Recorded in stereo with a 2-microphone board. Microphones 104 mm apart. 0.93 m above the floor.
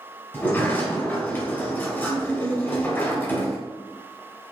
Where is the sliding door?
20° left (ahead or behind), 1.3 m.